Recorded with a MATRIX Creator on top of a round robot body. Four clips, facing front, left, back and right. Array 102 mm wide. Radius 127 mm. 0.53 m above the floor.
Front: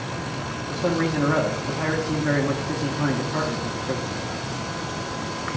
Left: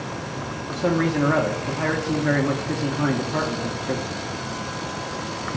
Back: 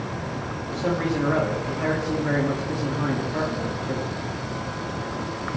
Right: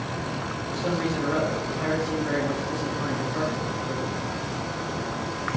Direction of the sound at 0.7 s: 70° left.